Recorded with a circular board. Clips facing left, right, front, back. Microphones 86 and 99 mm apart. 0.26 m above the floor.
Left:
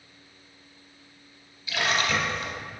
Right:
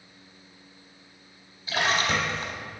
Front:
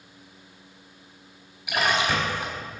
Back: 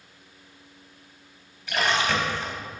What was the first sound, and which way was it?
A splash, 70° right.